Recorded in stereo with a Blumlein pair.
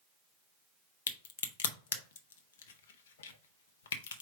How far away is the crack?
About 0.6 m.